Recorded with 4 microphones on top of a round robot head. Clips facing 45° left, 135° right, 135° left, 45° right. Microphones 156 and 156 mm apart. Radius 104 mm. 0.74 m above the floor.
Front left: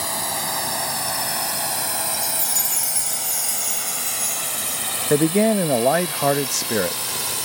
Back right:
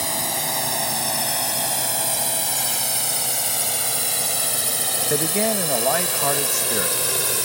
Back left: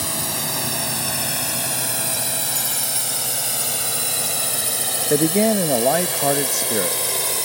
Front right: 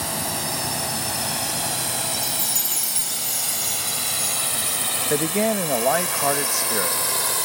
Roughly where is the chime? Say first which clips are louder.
Back right 2 dB, back left 2 dB; ahead left.